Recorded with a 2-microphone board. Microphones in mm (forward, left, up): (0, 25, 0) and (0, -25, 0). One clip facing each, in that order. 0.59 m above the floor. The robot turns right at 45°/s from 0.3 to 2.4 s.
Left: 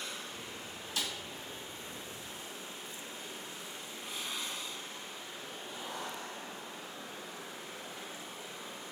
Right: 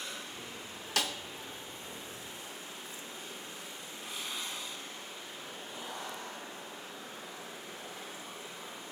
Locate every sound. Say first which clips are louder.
1.0 s a snare drum: right 5 dB; 70° right (ahead or behind), 0.6 m; by 1.1 s 75° right (ahead or behind), 0.6 m